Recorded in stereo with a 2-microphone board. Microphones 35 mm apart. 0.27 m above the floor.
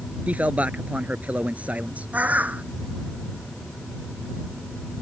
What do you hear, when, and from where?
0.3 s a man speaking: 40° right (ahead or behind)
2.1 s a bird: 45° right (ahead or behind)